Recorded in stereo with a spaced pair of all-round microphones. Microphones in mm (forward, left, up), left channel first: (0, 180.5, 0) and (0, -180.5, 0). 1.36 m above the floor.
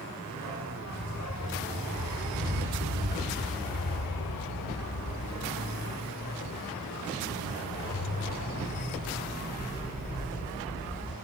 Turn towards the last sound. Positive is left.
turn(degrees=15)  # may be behind; listen again after turning